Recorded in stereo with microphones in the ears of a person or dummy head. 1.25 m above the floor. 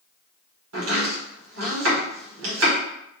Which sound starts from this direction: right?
Chopping, at 0.7 s.